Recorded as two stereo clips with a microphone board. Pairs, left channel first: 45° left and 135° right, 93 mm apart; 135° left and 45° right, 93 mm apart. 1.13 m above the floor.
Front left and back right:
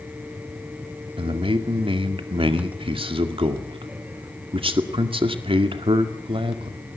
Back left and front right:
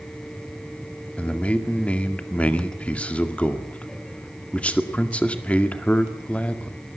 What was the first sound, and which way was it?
A man speaking, 150° right.